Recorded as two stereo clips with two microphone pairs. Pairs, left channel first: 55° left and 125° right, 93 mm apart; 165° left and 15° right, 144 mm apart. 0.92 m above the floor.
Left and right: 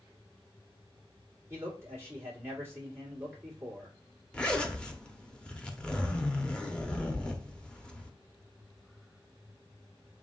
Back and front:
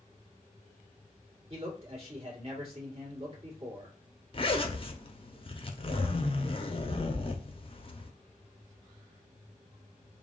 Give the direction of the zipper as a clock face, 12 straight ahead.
8 o'clock.